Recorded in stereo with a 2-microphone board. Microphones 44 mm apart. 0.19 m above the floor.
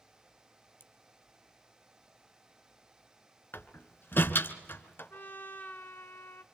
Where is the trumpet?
50° left (ahead or behind), 1.1 m.